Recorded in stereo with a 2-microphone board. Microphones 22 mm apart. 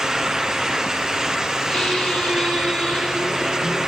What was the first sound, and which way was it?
A squeak, 35° left (ahead or behind).